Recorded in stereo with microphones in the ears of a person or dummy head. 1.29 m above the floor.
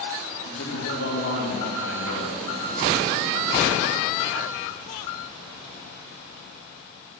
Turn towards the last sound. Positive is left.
turn(degrees=70)  # may be behind; listen again after turning